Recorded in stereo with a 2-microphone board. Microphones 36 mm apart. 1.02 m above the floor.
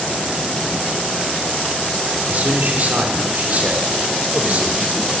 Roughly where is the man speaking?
Right.